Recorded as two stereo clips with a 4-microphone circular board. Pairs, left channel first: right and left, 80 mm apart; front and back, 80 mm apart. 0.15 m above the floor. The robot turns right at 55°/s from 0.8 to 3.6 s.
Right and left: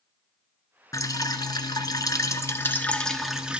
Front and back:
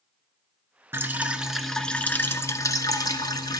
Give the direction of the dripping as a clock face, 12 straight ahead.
4 o'clock.